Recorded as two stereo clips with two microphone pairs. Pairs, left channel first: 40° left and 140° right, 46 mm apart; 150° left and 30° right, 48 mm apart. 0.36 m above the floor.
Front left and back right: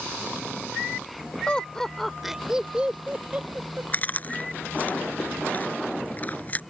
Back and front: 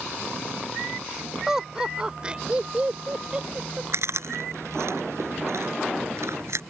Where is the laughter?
30° left; by 3.8 s 95° right.